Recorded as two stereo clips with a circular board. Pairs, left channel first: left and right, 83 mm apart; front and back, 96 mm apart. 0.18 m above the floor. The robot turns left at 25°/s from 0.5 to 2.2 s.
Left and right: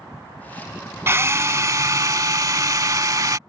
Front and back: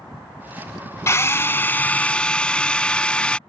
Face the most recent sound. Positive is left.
turn(degrees=-75)